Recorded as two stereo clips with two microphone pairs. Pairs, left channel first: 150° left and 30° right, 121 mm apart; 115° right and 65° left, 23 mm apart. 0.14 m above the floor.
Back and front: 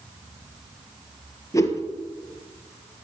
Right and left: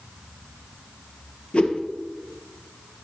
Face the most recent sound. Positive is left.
turn(degrees=-145)